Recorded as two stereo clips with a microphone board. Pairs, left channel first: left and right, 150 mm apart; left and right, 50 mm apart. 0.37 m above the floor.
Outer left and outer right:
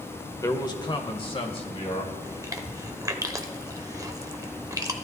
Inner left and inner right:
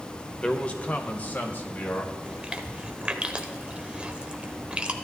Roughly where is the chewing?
Right.